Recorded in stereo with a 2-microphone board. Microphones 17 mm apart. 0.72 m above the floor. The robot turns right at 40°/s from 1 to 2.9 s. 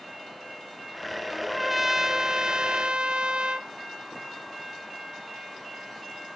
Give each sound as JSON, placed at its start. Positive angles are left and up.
{"t": 1.3, "sound": "a trumpet", "azimuth_deg": 180, "distance_m": 0.5}